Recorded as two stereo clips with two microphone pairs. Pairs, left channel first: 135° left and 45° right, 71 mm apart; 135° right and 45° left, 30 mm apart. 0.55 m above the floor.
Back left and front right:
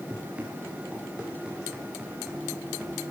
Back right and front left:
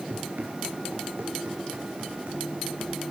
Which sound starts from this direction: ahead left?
Running footsteps, at 0.1 s.